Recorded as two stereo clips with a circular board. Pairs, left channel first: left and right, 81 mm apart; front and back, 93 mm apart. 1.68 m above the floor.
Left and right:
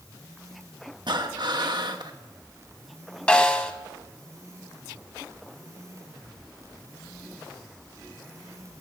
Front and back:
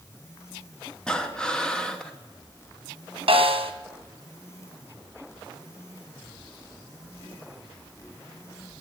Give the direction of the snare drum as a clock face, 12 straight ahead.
7 o'clock.